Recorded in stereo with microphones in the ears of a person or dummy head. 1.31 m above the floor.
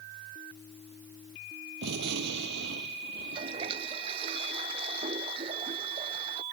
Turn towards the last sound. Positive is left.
turn(degrees=-35)  # may be behind; listen again after turning